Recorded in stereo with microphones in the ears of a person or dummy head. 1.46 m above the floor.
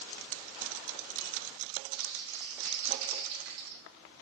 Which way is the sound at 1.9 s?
65° right (ahead or behind).